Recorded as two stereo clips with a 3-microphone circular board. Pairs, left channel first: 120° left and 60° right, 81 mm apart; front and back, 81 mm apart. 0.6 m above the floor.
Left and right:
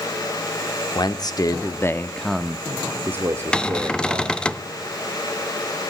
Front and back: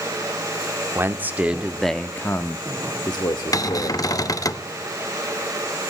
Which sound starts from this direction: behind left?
A man speaking, at 0.9 s.